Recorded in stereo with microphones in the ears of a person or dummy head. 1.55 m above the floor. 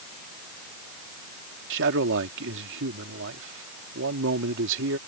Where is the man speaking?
70° right (ahead or behind).